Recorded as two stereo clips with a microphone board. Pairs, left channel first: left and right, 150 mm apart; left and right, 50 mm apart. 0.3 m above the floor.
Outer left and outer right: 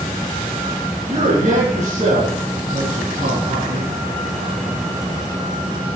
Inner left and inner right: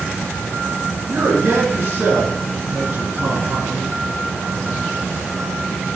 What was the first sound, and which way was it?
A man speaking, 55° right (ahead or behind).